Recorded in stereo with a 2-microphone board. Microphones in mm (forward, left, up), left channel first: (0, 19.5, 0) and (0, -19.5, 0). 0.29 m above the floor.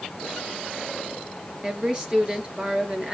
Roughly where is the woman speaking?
Right.